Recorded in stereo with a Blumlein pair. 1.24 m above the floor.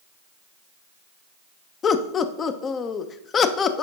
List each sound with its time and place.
1.8 s laughter: 25° left, 0.7 m